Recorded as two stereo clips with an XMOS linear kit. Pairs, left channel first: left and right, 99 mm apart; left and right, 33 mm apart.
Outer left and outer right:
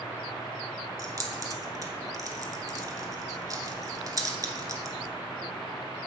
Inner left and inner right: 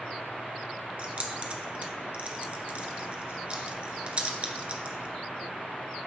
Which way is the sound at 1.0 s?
35° right (ahead or behind).